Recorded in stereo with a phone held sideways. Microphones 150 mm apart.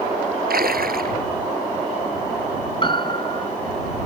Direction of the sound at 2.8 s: 35° left (ahead or behind).